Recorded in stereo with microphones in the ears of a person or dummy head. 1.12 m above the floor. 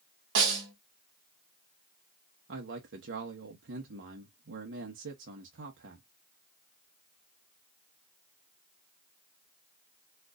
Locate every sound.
0.3 s a snare drum: 65° right (ahead or behind), 1.7 m
2.5 s a man speaking: 55° right (ahead or behind), 1.0 m